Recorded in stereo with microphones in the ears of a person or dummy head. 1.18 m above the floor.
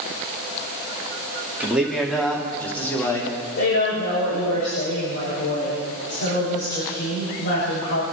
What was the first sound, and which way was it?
A man speaking, 5° right (ahead or behind).